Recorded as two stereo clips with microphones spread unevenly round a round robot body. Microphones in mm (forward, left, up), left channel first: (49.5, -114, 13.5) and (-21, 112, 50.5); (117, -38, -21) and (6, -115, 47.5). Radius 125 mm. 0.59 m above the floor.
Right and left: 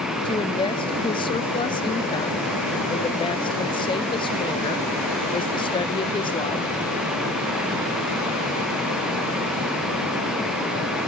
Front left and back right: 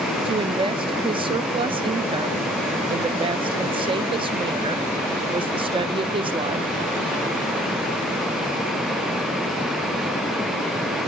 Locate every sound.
0.2 s a woman speaking: 70° right, 0.6 m